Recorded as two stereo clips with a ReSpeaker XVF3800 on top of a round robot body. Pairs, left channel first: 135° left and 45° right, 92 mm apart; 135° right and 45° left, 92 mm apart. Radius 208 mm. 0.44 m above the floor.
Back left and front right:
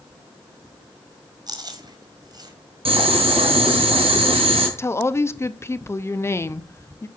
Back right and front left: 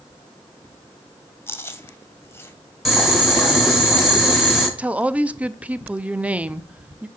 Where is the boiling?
40° right, 3 m.